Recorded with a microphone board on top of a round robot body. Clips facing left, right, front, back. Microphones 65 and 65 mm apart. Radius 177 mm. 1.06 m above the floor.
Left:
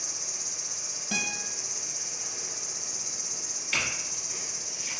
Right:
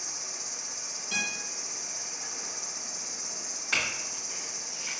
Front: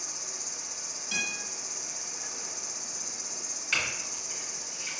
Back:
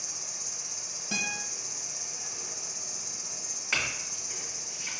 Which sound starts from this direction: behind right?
A clink, at 3.7 s.